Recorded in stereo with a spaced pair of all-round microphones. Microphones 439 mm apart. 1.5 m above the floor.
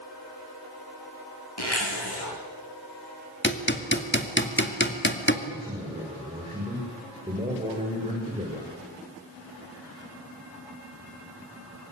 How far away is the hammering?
About 2.5 m.